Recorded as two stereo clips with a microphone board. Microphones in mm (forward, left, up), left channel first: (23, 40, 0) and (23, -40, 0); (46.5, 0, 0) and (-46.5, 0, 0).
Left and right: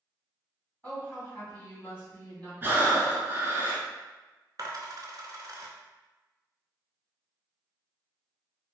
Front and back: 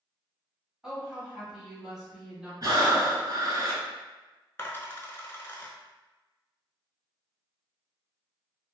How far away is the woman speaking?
About 1.5 m.